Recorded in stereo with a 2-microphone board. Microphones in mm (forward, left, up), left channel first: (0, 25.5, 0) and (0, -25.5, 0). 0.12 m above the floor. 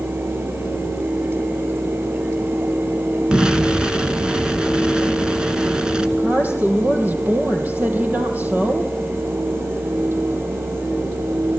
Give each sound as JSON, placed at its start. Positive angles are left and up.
{"t": 3.3, "sound": "an explosion", "side_deg": -20, "distance_m": 1.7}
{"t": 6.2, "sound": "a woman speaking", "side_deg": -30, "distance_m": 4.0}